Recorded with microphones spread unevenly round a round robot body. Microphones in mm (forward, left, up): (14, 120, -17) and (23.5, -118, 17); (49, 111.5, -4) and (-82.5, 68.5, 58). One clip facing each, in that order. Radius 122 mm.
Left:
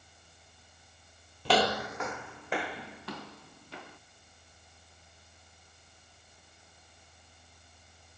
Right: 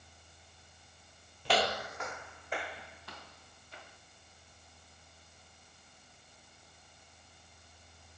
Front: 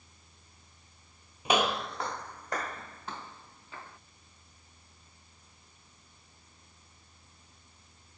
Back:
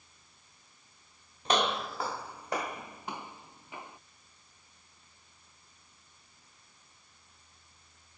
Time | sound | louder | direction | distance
1.4 | footsteps | left 5 dB, front 1 dB | 110° left | ?